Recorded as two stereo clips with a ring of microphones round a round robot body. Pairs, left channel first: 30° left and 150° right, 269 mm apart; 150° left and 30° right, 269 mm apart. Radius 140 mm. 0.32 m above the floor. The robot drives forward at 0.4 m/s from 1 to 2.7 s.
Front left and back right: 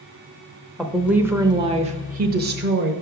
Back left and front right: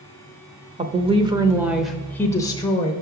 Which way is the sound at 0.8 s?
65° right.